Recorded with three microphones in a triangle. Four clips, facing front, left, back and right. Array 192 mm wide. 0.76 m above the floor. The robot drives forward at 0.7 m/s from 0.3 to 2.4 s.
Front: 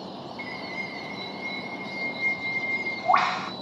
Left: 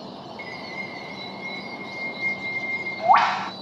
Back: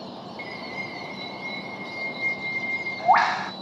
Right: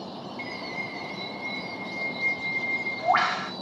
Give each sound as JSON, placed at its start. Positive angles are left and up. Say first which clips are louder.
{"t": 0.4, "sound": "a bird", "louder": "right 1 dB, back 1 dB", "azimuth_deg": 95, "distance_m": 1.9}